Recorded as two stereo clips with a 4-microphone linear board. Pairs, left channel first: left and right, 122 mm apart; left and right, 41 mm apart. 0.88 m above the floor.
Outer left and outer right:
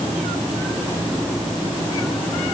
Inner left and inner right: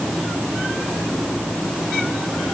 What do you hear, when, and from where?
Only background noise.